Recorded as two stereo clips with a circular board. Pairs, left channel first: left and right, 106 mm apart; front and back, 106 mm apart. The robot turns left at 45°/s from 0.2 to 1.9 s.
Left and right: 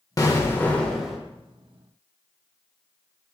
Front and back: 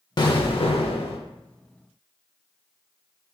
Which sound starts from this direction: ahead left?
An explosion, at 0.2 s.